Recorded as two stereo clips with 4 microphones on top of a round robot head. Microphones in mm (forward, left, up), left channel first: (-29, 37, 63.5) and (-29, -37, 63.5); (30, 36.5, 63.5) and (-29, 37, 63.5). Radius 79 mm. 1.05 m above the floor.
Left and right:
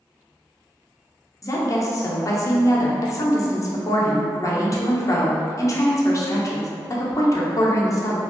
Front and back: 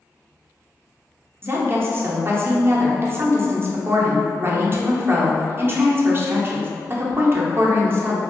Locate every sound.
1.4 s a woman speaking: 135° left, 0.8 m